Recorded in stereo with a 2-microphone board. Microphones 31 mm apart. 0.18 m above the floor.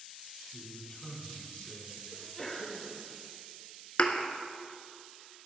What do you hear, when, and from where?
0.5 s a man speaking: 20° left (ahead or behind), 1.6 m; by 2.0 s 45° left (ahead or behind), 2 m
2.1 s a sneeze: 10° left (ahead or behind), 2 m
4.0 s a thud: 50° left (ahead or behind), 0.7 m